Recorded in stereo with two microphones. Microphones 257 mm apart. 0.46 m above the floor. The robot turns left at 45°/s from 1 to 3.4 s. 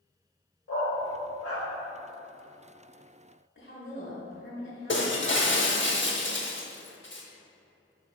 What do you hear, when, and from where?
0.7 s a dog barking: 75° left (ahead or behind), 0.9 m; by 1.7 s 60° left (ahead or behind), 0.9 m
3.5 s a woman speaking: 55° left (ahead or behind), 2.0 m
4.9 s breaking glass: 50° left (ahead or behind), 0.7 m